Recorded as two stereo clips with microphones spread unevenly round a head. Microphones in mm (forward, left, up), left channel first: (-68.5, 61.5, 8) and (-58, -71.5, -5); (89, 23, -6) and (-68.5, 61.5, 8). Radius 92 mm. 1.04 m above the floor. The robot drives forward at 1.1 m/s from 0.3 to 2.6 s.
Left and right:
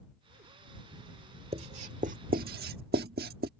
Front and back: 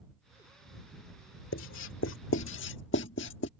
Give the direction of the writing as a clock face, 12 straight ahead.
1 o'clock.